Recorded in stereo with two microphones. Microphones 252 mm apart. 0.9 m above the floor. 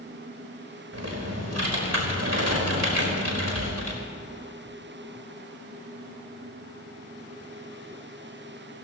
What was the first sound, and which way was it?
Typing on a keyboard, 80° right.